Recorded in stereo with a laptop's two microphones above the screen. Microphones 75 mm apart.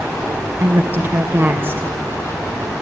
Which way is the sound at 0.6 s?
35° right (ahead or behind).